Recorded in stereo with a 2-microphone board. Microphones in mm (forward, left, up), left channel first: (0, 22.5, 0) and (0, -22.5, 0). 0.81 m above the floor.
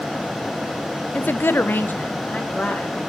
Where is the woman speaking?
25° left (ahead or behind), 0.5 m; by 3.0 s 35° left (ahead or behind), 2.5 m.